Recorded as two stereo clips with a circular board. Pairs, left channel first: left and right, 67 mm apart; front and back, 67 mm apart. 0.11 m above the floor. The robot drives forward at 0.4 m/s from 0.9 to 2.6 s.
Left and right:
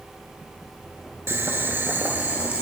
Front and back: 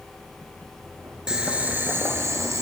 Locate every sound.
1.3 s boiling: 110° right, 0.6 m; by 2.6 s 150° right, 0.9 m